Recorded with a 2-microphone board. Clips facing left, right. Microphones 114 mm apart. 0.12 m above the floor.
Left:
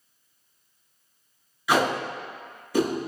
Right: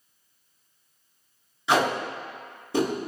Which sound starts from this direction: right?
Tape being pulled, at 1.7 s.